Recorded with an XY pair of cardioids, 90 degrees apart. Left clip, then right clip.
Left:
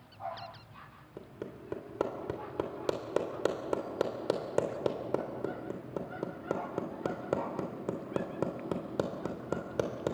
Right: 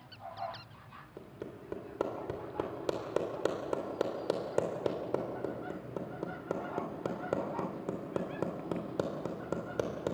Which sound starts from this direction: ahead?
Hammering, at 1.2 s.